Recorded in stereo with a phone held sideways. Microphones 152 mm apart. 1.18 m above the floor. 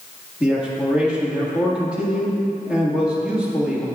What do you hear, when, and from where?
0.4 s a man speaking: 5° right (ahead or behind), 1.8 m